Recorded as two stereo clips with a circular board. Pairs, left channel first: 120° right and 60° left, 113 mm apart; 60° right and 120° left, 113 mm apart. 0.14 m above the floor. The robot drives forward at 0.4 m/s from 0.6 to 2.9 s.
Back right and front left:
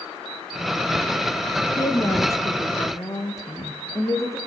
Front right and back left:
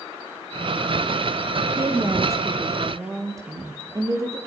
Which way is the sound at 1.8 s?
Straight behind.